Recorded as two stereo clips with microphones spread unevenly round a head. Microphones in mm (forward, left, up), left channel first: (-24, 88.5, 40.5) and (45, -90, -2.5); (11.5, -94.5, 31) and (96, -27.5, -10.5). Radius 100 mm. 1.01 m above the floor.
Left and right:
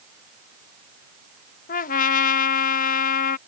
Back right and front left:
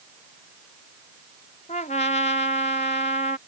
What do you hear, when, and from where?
1.7 s a trumpet: 165° left